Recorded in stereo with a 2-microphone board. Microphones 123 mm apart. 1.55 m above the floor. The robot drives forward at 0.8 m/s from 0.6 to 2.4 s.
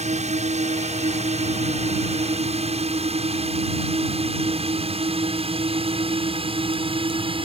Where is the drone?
70° right (ahead or behind); by 7.5 s 50° right (ahead or behind).